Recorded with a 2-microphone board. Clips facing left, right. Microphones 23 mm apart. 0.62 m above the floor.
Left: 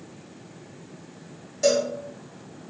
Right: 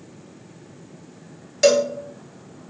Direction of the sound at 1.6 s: 60° right (ahead or behind).